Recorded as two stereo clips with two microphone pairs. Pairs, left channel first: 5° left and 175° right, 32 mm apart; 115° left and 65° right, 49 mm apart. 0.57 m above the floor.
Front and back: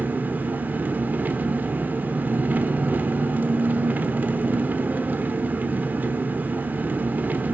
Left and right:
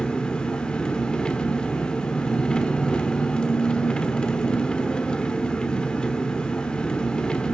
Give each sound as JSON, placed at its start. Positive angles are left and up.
{"t": 0.0, "sound": "an engine running", "azimuth_deg": -175, "distance_m": 1.0}